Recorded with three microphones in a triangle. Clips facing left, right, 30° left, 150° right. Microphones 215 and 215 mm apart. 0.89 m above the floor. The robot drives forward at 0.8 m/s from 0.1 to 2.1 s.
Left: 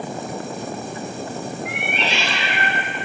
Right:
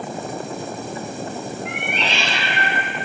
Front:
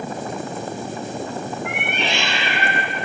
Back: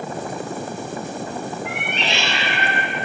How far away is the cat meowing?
About 1.6 m.